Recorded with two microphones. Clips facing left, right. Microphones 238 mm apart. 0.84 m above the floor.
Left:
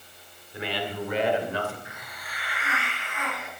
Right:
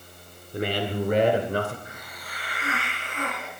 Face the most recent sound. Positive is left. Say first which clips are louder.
# right 2 dB
turn(degrees=-40)  # may be behind; listen again after turning